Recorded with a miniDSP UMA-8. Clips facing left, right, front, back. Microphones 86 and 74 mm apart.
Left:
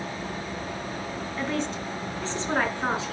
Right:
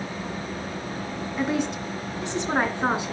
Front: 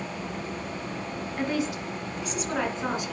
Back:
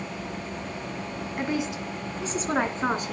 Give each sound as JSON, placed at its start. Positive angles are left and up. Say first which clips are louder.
{"t": 1.4, "sound": "a woman speaking", "louder": "right 4 dB, even", "azimuth_deg": -135, "distance_m": 1.3}